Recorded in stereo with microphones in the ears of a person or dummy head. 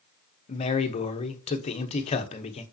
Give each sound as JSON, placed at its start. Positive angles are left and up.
{"t": 0.5, "sound": "a man speaking", "side_deg": 35, "distance_m": 0.9}